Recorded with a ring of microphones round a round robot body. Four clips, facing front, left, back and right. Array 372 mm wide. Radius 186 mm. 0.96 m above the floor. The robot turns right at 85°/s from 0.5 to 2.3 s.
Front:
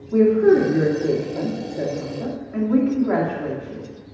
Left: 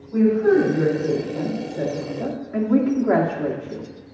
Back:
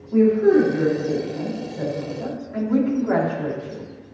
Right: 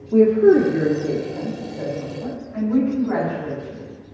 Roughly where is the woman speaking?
Right.